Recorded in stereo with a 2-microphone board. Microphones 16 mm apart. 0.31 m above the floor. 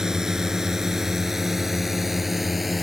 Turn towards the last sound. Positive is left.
turn(degrees=-10)  # may be behind; listen again after turning